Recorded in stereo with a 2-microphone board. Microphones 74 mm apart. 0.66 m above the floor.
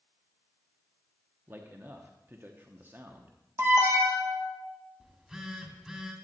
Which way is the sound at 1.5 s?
30° right (ahead or behind).